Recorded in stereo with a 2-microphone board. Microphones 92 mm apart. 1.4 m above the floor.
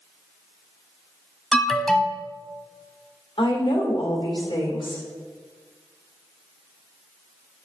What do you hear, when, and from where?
1.5 s an alarm: 5° left (ahead or behind), 0.8 m
3.4 s a woman speaking: 70° left (ahead or behind), 1.8 m